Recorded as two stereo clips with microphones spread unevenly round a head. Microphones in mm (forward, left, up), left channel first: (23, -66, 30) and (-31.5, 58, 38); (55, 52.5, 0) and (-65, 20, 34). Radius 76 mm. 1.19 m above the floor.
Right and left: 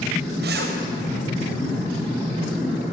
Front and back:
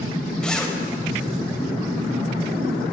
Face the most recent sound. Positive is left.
turn(degrees=100)